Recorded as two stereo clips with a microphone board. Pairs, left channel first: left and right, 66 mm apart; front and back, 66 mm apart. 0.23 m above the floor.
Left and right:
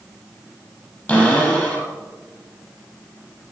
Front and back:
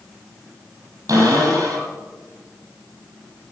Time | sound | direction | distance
1.1 | a cupboard door | 150° left | 5 m